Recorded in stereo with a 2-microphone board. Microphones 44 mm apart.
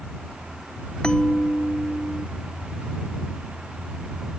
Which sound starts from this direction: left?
A bell, at 1.0 s.